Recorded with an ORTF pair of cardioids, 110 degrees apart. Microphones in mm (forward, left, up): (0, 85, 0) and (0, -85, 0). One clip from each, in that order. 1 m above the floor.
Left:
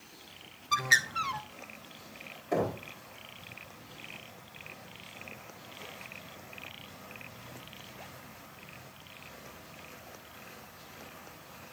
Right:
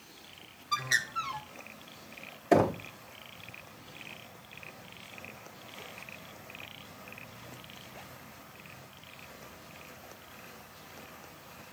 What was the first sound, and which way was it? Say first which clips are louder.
A bird: left 4 dB; 20° left.